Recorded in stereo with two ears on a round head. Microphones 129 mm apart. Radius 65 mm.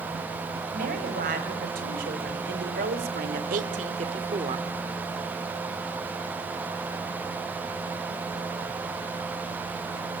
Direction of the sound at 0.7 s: 65° right (ahead or behind).